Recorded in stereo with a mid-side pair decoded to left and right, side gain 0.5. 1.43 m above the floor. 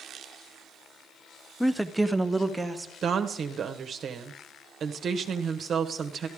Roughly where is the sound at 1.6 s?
Ahead.